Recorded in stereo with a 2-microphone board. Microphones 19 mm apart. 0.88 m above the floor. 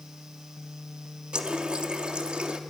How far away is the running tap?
About 1.2 m.